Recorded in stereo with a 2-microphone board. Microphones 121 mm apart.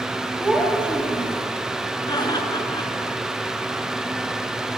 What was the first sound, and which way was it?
A child speaking, 5° right (ahead or behind).